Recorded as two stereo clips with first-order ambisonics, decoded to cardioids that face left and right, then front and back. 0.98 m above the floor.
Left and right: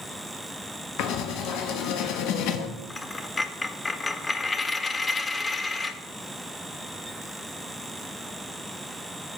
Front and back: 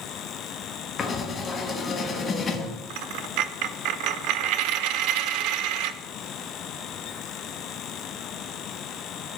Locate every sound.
1.0 s writing: 65° left, 1.2 m
2.9 s a dropped coin: 165° left, 0.5 m